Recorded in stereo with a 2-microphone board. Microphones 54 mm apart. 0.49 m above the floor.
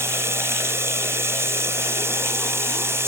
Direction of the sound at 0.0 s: 60° right (ahead or behind).